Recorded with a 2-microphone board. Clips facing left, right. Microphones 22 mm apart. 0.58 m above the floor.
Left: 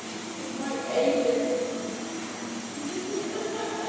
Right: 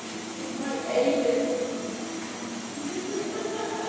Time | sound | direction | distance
0.4 | laughter | 35° right (ahead or behind) | 4 m